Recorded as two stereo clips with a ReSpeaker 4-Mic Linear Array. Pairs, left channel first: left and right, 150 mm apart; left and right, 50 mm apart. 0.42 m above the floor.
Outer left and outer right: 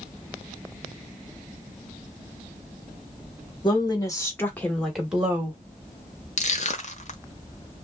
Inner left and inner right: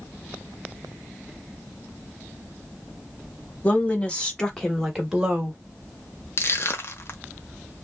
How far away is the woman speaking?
About 1.6 m.